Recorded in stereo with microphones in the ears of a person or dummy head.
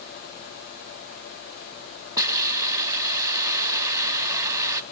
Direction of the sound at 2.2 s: 20° right (ahead or behind).